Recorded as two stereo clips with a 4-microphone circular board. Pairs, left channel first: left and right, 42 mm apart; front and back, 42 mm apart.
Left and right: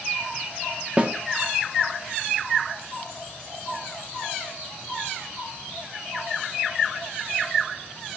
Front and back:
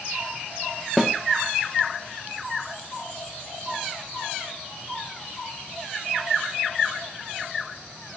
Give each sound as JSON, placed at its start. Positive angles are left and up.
{"t": 1.0, "sound": "a snare drum", "azimuth_deg": -90, "distance_m": 0.8}